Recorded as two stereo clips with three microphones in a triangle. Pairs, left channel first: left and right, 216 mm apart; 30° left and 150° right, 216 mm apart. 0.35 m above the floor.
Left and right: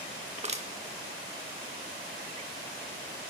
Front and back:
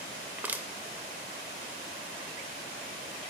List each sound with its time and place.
0.4 s crushing: 75° right, 0.6 m